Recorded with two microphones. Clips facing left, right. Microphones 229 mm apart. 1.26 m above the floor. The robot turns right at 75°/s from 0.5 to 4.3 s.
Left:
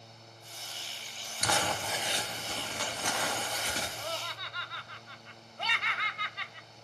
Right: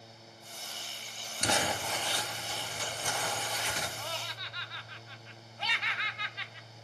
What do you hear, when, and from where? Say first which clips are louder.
1.4 s crumpling: right 1 dB; 30° right, 3 m; by 3.9 s 155° left, 3 m
4.0 s laughter: left 2 dB; 35° left (ahead or behind), 0.8 m; by 6.7 s 55° left (ahead or behind), 0.8 m